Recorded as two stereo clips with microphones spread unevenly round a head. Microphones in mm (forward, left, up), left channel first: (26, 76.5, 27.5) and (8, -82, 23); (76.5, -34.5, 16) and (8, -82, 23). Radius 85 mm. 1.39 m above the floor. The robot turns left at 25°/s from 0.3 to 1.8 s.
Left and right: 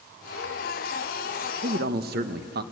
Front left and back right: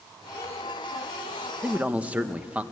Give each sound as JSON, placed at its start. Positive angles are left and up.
{"t": 1.6, "sound": "a man speaking", "azimuth_deg": -70, "distance_m": 1.2}